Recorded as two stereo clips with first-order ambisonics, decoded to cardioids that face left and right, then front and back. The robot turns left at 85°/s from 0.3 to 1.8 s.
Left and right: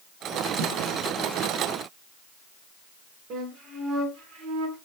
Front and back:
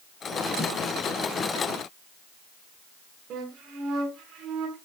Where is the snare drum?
80° right, 4.5 m; by 0.7 s 90° right, 4.5 m.